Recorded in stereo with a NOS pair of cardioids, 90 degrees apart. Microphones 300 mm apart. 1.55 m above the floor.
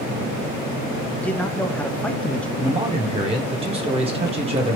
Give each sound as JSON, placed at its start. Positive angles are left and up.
{"t": 1.2, "sound": "a man speaking", "azimuth_deg": 5, "distance_m": 0.5}
{"t": 2.6, "sound": "a man speaking", "azimuth_deg": -20, "distance_m": 1.0}